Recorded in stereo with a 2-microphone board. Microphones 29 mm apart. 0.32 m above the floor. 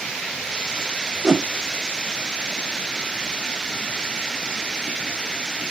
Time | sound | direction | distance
1.2 | a whoosh | 20° right (ahead or behind) | 0.9 m